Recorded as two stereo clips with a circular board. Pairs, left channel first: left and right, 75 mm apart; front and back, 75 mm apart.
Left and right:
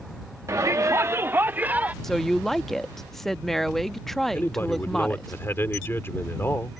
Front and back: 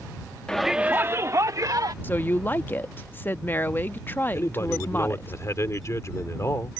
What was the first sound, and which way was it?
A shout, 75° right.